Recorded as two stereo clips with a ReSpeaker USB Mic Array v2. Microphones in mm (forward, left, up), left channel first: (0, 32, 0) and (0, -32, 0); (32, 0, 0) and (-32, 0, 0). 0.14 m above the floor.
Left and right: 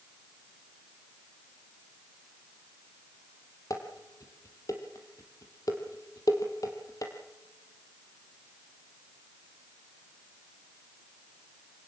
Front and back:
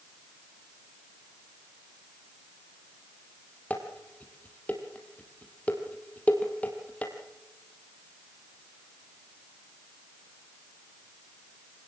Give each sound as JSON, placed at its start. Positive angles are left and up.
{"t": 3.7, "sound": "dishes clattering", "azimuth_deg": 65, "distance_m": 3.0}